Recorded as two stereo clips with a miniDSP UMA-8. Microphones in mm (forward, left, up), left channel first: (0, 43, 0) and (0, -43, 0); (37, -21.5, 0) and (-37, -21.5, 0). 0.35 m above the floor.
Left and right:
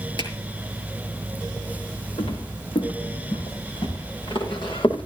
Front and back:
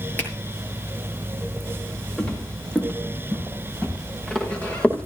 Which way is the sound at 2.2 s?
85° left.